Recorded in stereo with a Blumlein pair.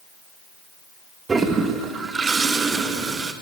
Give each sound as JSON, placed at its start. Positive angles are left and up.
{"t": 1.3, "sound": "a toilet flushing", "azimuth_deg": -15, "distance_m": 2.0}